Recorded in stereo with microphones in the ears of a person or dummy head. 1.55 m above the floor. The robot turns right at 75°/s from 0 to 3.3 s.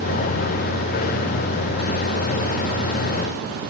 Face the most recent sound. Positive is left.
No sound to turn to.